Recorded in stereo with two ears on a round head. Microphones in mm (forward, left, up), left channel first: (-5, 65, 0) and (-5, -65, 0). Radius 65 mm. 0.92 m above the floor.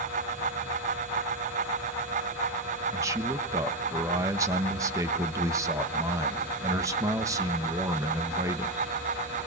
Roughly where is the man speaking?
Right.